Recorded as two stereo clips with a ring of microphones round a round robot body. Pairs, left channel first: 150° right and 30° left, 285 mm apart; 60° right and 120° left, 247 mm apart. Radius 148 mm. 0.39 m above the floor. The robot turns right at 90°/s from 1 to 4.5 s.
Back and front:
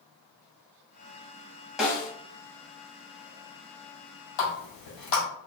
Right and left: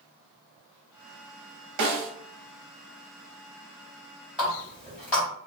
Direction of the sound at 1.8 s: 120° left.